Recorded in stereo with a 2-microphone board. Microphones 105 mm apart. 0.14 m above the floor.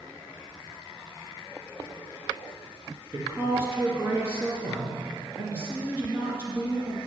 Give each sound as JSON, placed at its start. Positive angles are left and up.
{"t": 3.1, "sound": "a woman speaking", "side_deg": -25, "distance_m": 2.0}